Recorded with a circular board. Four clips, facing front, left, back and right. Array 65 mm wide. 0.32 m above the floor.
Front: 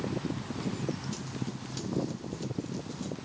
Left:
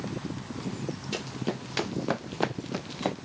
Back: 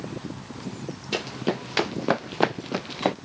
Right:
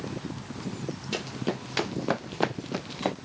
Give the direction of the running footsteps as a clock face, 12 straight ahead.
6 o'clock.